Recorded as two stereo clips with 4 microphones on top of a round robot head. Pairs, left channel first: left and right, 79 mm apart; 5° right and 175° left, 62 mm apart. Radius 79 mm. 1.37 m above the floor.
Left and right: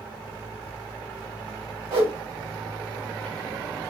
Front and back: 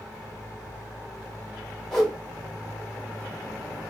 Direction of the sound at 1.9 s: 90° right.